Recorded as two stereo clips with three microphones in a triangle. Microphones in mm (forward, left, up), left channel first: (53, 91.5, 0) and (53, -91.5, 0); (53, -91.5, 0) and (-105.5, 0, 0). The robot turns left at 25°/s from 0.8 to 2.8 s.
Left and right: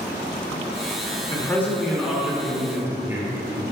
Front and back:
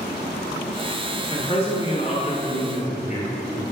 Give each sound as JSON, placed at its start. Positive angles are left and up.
{"t": 1.3, "sound": "a man speaking", "azimuth_deg": 20, "distance_m": 1.9}